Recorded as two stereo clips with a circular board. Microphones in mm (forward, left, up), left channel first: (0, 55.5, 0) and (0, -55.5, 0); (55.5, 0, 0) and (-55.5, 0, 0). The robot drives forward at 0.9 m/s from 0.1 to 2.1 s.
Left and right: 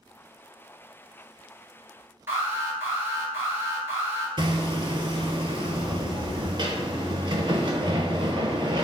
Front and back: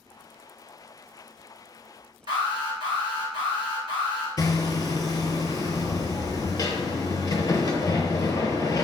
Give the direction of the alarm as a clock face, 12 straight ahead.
5 o'clock.